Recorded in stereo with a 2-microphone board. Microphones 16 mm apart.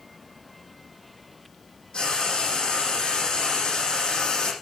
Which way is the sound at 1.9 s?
60° left (ahead or behind).